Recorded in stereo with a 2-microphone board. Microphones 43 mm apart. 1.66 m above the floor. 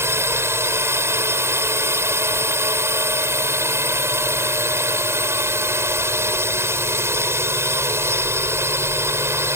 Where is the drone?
80° right.